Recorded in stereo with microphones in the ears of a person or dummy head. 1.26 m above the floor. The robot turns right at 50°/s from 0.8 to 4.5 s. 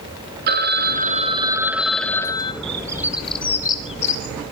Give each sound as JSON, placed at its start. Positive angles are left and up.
{"t": 0.5, "sound": "a phone ringing", "azimuth_deg": -55, "distance_m": 1.2}
{"t": 2.6, "sound": "a bird", "side_deg": -30, "distance_m": 1.9}